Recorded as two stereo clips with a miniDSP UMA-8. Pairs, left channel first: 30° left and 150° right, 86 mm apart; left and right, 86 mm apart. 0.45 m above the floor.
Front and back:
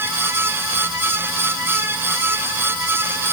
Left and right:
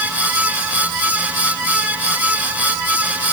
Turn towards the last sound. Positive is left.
No sound to turn to.